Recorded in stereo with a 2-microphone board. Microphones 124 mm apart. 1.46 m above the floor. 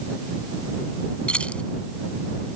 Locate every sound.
1.3 s keys jangling: 10° left (ahead or behind)